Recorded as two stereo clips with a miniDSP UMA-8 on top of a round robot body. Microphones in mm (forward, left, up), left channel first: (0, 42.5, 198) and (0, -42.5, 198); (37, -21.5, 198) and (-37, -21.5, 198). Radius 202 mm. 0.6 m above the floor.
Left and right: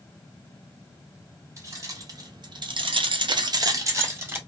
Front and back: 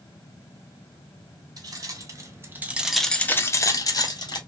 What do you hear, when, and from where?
1.6 s keys jangling: 145° right, 1.1 m; by 4.4 s 25° right, 1.0 m